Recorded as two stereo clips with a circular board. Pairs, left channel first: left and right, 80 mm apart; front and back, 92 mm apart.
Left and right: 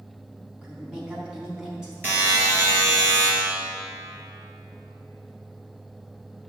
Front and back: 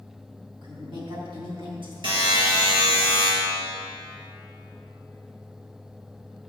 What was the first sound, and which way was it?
A woman speaking, 165° right.